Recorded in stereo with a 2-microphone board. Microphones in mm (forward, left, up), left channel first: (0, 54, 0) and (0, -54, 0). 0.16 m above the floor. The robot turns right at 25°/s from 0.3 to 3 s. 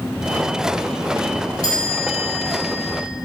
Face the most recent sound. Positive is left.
turn(degrees=75)